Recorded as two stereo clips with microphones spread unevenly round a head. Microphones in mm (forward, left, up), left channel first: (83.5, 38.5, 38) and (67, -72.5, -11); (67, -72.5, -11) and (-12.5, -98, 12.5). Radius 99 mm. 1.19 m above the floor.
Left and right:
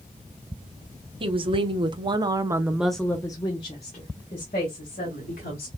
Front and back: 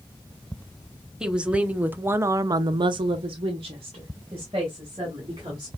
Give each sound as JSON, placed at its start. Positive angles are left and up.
{"t": 1.2, "sound": "a woman speaking", "azimuth_deg": -75, "distance_m": 1.2}